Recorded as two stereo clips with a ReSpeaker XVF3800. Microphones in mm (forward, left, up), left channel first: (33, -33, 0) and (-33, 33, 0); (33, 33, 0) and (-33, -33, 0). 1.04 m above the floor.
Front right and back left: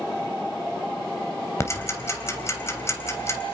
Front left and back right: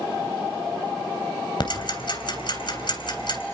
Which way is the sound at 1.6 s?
15° left.